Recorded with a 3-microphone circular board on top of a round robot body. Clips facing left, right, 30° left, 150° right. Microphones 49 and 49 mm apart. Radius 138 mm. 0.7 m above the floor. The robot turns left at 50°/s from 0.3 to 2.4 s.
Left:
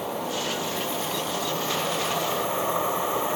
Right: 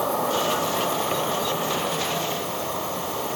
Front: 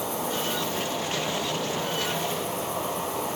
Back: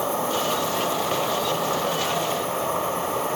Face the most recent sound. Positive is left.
turn(degrees=160)